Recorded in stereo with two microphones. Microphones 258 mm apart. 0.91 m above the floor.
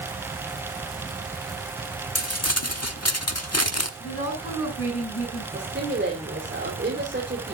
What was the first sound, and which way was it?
Crumpling, 70° left (ahead or behind).